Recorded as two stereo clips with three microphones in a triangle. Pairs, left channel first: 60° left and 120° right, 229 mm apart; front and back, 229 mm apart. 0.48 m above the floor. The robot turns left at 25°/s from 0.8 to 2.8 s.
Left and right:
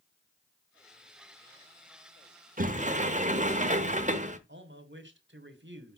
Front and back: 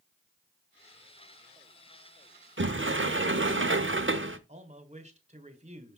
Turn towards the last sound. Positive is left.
turn(degrees=-130)